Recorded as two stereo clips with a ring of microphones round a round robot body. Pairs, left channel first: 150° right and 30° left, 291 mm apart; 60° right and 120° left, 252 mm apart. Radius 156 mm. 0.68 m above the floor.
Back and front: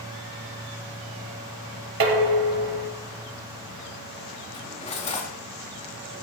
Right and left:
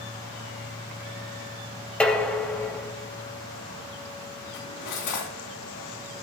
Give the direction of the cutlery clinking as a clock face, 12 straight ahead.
3 o'clock.